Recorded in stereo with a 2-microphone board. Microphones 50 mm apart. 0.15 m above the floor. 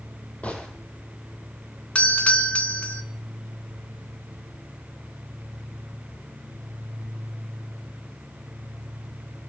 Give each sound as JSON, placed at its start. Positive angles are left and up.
{"t": 0.4, "sound": "a gunshot", "side_deg": 30, "distance_m": 6.5}
{"t": 1.9, "sound": "a doorbell", "side_deg": 25, "distance_m": 1.6}